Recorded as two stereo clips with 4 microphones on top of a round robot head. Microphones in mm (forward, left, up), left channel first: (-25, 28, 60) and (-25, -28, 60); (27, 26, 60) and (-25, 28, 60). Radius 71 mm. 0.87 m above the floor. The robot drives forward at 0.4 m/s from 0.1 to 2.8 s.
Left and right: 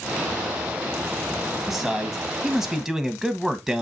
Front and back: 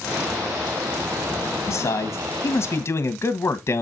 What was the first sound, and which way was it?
A man speaking, 5° right.